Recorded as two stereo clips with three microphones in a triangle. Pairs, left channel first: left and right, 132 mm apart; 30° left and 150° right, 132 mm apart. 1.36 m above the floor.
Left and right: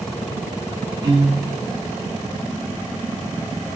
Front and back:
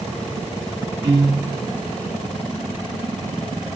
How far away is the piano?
About 1.0 m.